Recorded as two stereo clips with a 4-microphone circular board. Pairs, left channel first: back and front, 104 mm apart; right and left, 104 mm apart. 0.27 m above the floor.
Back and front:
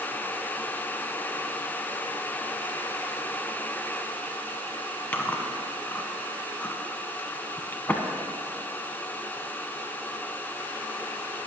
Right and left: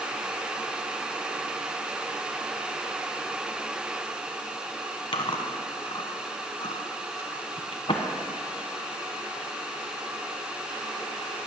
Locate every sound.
5.1 s chewing: 110° right, 1.1 m